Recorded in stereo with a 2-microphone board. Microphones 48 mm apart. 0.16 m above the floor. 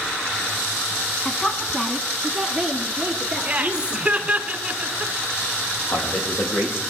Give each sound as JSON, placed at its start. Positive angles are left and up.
{"t": 1.2, "sound": "a woman speaking", "side_deg": 20, "distance_m": 1.2}
{"t": 3.5, "sound": "laughter", "side_deg": -20, "distance_m": 1.9}
{"t": 5.9, "sound": "a man speaking", "side_deg": 70, "distance_m": 6.0}